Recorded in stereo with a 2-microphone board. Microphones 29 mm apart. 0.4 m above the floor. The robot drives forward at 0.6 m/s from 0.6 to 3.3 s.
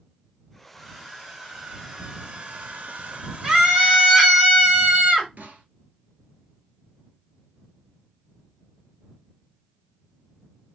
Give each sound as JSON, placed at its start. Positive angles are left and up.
{"t": 0.7, "sound": "a hair dryer", "side_deg": -15, "distance_m": 1.4}
{"t": 3.4, "sound": "a scream", "side_deg": -25, "distance_m": 1.1}
{"t": 5.4, "sound": "a snare drum", "side_deg": -80, "distance_m": 1.0}